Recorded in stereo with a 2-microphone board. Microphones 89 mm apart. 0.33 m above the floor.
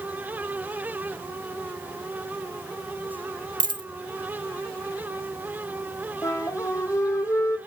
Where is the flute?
35° left (ahead or behind), 1.9 m.